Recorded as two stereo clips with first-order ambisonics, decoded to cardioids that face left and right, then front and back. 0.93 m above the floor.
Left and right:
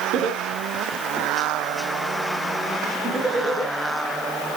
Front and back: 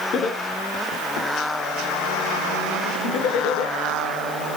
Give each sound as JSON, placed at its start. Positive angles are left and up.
{"t": 0.1, "sound": "laughter", "azimuth_deg": -50, "distance_m": 2.0}